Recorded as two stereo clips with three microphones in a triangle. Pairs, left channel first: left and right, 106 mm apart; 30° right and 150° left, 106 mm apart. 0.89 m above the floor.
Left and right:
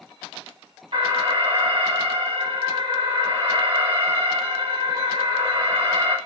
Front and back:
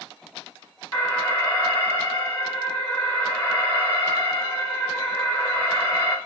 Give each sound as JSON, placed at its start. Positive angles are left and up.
{"t": 0.9, "sound": "an alarm", "azimuth_deg": -100, "distance_m": 4.0}